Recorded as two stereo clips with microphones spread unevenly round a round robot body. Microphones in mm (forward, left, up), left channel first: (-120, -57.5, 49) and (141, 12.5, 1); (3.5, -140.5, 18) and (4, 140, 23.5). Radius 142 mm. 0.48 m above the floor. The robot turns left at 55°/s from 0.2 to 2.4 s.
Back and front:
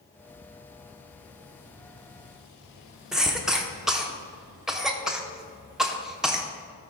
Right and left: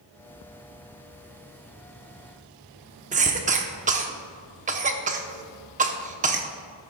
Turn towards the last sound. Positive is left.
turn(degrees=75)